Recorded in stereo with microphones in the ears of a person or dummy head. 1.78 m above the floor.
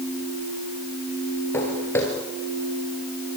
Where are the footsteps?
10° left (ahead or behind), 2.0 m.